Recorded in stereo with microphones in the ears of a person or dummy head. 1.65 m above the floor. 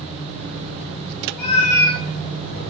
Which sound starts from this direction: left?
A cat meowing, at 1.4 s.